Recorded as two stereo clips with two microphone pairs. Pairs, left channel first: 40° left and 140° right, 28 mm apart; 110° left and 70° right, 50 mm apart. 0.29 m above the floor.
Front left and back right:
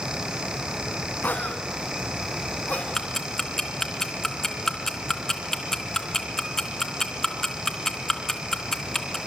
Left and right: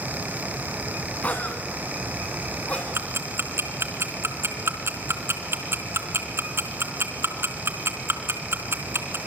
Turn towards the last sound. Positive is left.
turn(degrees=-35)